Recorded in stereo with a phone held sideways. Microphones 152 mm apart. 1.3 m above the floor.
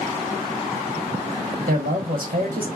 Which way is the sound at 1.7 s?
70° right (ahead or behind).